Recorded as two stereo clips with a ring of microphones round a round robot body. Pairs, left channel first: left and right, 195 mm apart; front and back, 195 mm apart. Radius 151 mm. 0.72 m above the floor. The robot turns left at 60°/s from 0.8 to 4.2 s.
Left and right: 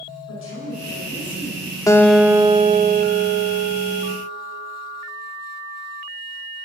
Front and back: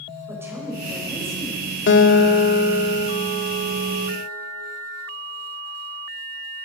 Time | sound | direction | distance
0.3 | a woman speaking | 105° left | 4 m
1.9 | a guitar | 15° left | 1.3 m